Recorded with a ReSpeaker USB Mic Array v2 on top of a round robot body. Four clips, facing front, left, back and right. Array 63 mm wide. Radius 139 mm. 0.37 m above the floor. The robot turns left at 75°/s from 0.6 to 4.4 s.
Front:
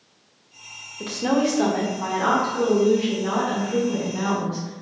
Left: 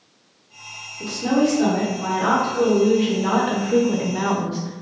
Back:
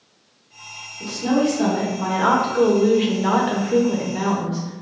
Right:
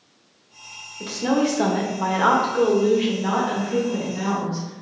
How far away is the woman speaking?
About 1.5 m.